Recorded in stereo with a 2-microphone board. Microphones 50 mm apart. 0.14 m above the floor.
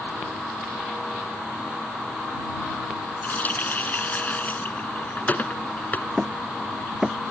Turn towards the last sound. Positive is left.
turn(degrees=-5)  # may be behind; listen again after turning